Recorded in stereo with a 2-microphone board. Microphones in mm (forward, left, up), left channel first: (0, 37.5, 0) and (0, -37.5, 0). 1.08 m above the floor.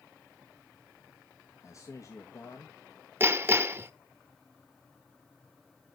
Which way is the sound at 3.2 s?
30° right (ahead or behind).